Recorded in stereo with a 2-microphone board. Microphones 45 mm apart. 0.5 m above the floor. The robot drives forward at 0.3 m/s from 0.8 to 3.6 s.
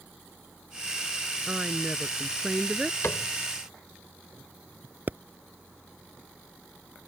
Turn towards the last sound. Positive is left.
turn(degrees=-50)  # may be behind; listen again after turning